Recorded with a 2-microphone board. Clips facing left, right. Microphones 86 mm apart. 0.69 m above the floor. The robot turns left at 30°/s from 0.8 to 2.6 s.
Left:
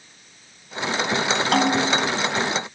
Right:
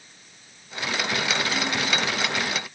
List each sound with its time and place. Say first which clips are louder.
1.5 s a snare drum: left 7 dB; 70° left (ahead or behind); by 2.1 s 55° left (ahead or behind)